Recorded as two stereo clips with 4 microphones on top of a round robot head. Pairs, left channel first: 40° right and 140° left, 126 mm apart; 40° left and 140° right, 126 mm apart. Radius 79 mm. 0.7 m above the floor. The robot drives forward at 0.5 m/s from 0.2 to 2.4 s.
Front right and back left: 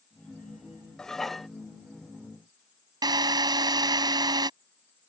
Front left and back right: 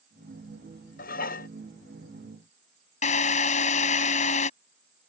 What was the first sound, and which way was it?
Dishes clattering, 45° left.